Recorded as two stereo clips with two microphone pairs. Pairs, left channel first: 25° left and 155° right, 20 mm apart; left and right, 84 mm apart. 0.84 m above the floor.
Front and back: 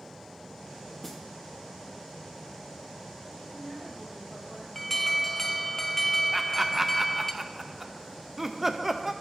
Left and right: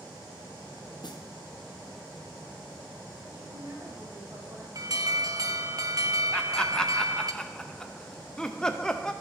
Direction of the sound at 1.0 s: 105° left.